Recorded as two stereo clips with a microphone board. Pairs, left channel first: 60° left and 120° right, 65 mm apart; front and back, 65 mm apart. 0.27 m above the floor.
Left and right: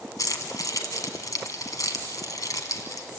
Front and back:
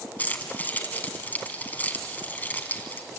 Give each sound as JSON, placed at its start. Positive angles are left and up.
{"t": 0.2, "sound": "keys jangling", "azimuth_deg": 60, "distance_m": 1.9}